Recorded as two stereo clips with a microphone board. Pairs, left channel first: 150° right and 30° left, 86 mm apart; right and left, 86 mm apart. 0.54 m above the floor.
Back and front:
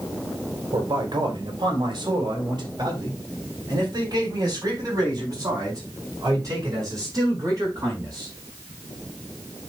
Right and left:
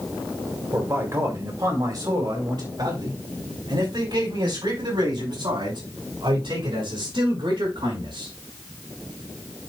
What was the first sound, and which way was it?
A man speaking, 35° left.